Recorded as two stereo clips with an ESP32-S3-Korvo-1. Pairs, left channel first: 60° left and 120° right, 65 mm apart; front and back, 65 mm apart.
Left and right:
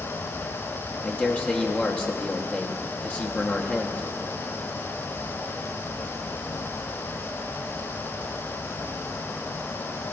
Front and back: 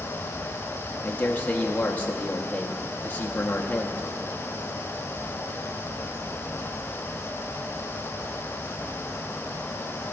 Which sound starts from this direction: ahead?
A man speaking, at 1.0 s.